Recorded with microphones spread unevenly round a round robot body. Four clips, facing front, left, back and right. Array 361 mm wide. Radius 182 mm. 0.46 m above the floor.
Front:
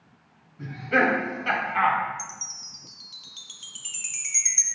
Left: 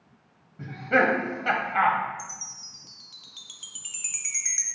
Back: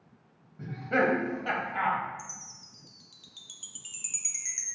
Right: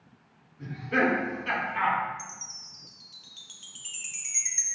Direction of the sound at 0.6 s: 95° left.